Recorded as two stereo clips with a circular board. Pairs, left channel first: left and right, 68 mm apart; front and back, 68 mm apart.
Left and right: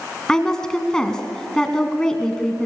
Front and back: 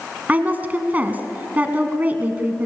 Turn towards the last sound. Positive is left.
turn(degrees=155)